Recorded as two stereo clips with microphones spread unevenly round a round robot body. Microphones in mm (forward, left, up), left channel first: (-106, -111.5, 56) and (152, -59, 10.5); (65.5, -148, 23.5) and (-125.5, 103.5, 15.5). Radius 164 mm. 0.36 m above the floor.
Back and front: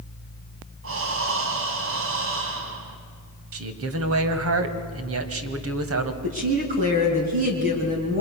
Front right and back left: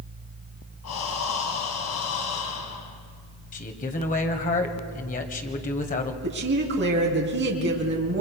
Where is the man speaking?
10° left, 2 m.